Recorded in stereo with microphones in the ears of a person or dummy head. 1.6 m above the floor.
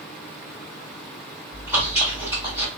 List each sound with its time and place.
1.5 s chewing: 15° right (ahead or behind), 1.6 m